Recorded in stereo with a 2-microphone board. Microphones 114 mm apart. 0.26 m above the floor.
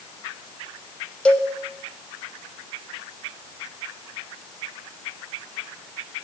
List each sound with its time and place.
1.2 s a cowbell: 10° left (ahead or behind), 0.9 m